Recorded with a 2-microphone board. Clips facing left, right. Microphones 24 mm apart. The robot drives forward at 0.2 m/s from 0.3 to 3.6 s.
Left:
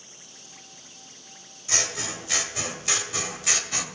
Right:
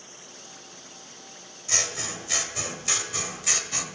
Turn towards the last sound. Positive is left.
turn(degrees=15)  # may be behind; listen again after turning